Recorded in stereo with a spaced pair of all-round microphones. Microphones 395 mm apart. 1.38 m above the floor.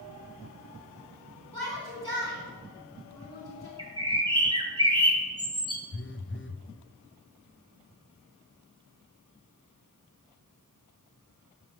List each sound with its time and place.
1.5 s a shout: 70° left (ahead or behind), 2 m
3.8 s a bird: 10° right (ahead or behind), 1.5 m
5.9 s a phone buzzing: 30° left (ahead or behind), 0.6 m